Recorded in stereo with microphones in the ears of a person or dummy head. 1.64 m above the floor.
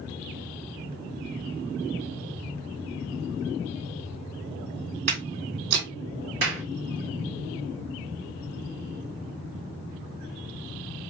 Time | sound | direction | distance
5.1 | footsteps | 45° right (ahead or behind) | 2.5 m
6.4 | a clap | 55° right (ahead or behind) | 1.4 m